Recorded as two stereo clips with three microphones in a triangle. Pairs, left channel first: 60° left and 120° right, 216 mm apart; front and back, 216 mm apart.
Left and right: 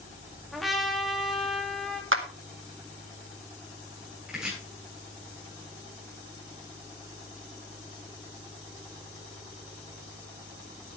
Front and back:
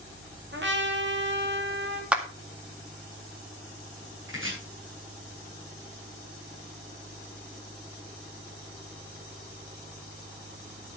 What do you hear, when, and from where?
0.5 s a trumpet: 150° left, 2 m
2.1 s a clap: 95° right, 1.8 m
4.3 s chopping: 155° left, 7.5 m